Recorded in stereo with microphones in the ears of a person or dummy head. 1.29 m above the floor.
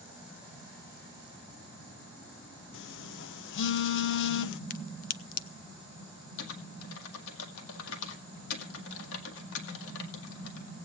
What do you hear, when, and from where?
2.7 s a phone buzzing: 60° left (ahead or behind), 0.5 m
4.7 s a crack: 40° left (ahead or behind), 0.6 m
6.4 s typing on a keyboard: 80° left, 1.9 m